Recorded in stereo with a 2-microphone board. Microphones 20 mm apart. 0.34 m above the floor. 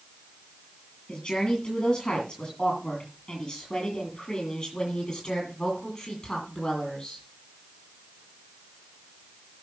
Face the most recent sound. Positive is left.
turn(degrees=30)  # may be behind; listen again after turning